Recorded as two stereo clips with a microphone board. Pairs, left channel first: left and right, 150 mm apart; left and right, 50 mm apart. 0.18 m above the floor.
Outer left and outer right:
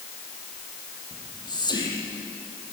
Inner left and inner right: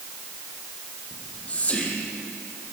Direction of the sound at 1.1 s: 30° left (ahead or behind).